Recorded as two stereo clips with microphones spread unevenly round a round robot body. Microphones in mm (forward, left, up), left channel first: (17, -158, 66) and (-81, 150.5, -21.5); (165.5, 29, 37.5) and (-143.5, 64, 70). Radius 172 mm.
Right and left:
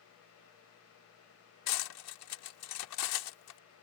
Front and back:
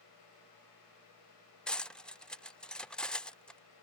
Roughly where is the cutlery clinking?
Right.